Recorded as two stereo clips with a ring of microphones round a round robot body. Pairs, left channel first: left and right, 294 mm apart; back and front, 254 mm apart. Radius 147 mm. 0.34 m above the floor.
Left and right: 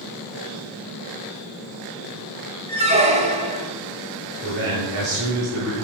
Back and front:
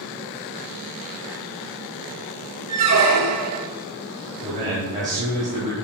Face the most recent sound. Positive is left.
turn(degrees=-70)